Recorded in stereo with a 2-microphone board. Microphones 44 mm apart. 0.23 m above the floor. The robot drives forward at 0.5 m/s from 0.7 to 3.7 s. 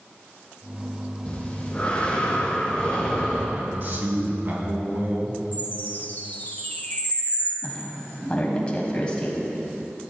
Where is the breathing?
25° left (ahead or behind), 2.0 m; by 3.5 s 15° left (ahead or behind), 3 m.